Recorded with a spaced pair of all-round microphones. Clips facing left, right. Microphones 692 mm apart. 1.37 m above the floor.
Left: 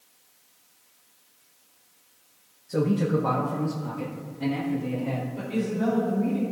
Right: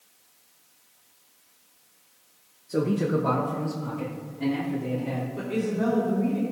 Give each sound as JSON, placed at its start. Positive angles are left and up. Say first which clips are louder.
{"t": 2.7, "sound": "a man speaking", "louder": "even", "side_deg": 30, "distance_m": 0.8}
{"t": 5.4, "sound": "a woman speaking", "louder": "right 1 dB", "side_deg": -70, "distance_m": 2.5}